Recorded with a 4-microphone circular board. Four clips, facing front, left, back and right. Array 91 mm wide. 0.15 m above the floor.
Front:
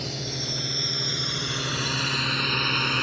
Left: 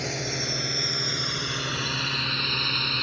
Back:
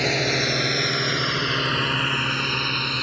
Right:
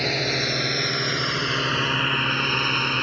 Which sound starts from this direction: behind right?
A drone, at 0.0 s.